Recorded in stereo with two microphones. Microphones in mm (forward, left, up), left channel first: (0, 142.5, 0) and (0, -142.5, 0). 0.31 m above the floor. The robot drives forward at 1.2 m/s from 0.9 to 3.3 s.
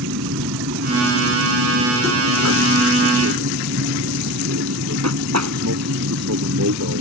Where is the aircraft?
65° right (ahead or behind).